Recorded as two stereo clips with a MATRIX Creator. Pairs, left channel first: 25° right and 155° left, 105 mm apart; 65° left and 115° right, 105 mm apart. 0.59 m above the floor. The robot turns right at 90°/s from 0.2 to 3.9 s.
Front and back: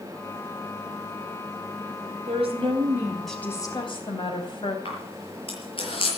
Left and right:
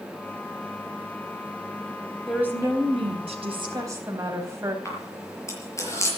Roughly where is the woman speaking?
Behind.